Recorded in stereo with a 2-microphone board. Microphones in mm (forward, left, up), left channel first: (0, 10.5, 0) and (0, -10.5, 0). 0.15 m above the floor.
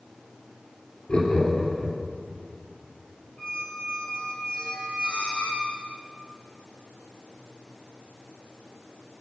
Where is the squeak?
65° left (ahead or behind), 1.2 m.